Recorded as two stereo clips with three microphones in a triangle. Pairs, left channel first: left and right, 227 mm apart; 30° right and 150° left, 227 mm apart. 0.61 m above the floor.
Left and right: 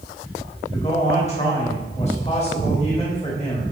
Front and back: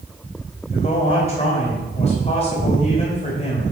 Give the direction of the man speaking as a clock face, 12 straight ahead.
11 o'clock.